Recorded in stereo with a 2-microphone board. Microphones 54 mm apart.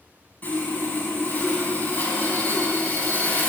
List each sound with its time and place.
0.4 s sawing: 35° left (ahead or behind), 1.2 m